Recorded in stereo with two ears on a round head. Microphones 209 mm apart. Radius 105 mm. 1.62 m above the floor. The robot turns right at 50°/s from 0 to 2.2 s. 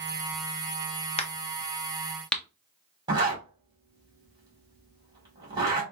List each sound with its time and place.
1.2 s a crack: 25° left (ahead or behind), 0.7 m; by 2.4 s 5° left (ahead or behind), 0.7 m
3.1 s a zipper: 20° right (ahead or behind), 1.9 m